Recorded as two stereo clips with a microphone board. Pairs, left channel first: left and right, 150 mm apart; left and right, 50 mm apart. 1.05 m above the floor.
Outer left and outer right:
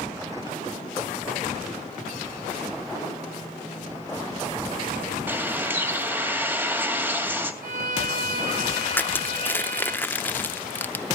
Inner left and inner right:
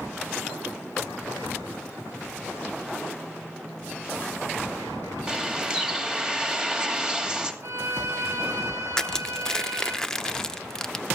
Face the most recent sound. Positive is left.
turn(degrees=15)  # may be behind; listen again after turning